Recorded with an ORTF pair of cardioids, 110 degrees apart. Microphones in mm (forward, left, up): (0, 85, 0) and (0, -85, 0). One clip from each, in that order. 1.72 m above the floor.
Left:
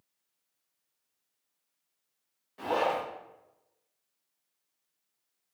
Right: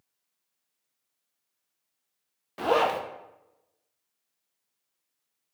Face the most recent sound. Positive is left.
turn(degrees=-65)